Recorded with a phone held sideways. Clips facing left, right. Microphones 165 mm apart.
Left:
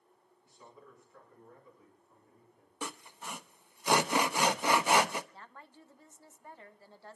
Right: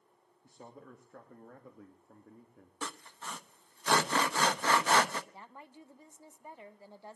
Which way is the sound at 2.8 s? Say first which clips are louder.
Left 1 dB; 15° left (ahead or behind).